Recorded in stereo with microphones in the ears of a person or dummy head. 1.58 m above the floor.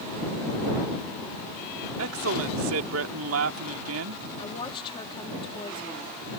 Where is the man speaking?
80° right.